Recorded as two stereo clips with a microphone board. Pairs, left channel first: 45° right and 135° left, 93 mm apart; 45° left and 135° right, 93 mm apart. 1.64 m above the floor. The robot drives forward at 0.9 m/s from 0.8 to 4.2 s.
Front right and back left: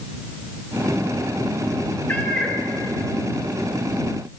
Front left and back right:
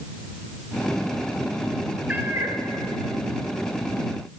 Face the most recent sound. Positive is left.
turn(degrees=-165)